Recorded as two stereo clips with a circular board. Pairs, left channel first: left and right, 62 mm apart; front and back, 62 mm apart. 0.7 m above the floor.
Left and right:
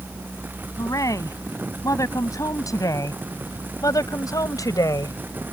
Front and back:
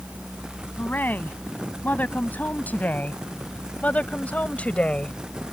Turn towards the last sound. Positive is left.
turn(degrees=70)